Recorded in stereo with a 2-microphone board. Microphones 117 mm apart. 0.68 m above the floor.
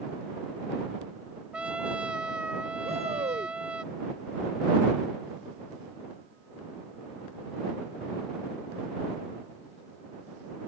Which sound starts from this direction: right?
A shout, at 2.8 s.